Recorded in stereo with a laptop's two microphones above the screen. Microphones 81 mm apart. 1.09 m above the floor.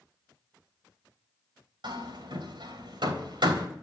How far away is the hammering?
About 3.5 m.